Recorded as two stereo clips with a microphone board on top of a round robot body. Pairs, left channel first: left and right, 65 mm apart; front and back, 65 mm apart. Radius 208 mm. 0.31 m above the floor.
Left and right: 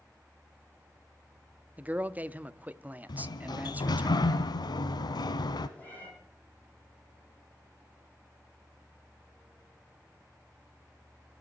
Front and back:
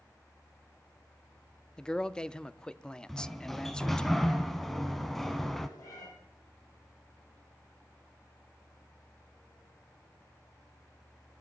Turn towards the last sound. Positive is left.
turn(degrees=20)